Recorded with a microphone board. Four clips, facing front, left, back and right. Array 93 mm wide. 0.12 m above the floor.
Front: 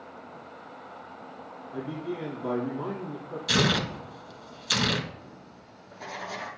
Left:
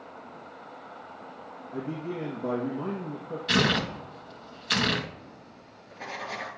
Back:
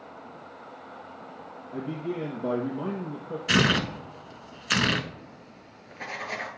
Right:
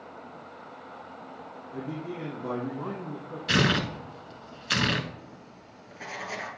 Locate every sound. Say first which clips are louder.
1.7 s a man speaking: left 2 dB, back 2 dB; 145° left, 2.5 m
3.5 s tearing paper: even, back 2 dB; 175° right, 0.8 m
5.2 s writing: right 1 dB, back 1 dB; 170° right, 2 m